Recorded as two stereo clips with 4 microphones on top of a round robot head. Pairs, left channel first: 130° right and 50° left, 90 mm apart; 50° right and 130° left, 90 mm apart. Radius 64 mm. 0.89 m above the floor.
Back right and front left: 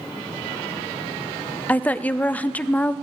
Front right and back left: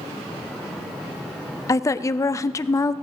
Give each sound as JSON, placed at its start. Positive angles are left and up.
{"t": 1.7, "sound": "a woman speaking", "azimuth_deg": -70, "distance_m": 0.5}